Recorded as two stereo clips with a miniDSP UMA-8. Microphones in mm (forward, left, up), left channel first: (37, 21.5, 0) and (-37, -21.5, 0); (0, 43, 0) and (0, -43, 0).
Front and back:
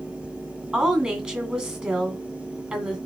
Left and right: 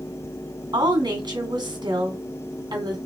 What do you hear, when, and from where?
0.7 s a woman speaking: 75° right, 2.5 m